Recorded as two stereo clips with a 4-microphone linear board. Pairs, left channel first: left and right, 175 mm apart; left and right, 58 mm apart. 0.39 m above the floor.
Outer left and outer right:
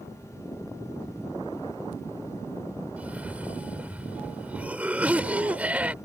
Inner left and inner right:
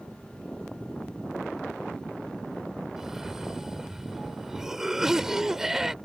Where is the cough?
10° right (ahead or behind).